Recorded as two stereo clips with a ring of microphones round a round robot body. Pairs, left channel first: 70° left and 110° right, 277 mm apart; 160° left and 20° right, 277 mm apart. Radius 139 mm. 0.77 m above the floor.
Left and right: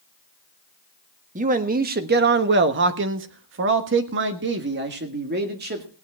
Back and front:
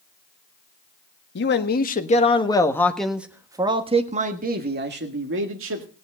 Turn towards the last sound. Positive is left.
turn(degrees=-60)